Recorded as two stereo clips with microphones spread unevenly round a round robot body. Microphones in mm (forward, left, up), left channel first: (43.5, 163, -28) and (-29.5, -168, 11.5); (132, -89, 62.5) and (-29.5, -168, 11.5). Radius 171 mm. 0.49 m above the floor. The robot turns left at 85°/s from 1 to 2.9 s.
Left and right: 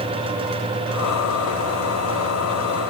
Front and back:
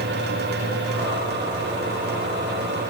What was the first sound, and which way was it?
Only background noise.